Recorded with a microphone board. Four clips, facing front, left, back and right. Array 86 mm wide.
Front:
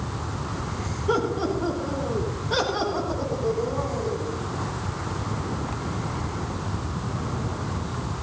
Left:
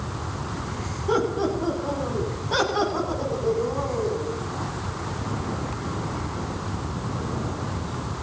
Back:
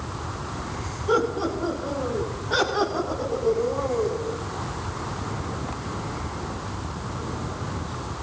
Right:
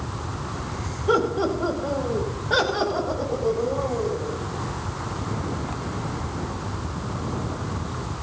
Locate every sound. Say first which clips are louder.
1.1 s laughter: right 2 dB, back 1 dB; 95° right, 7 m; by 4.3 s 100° right, 9.5 m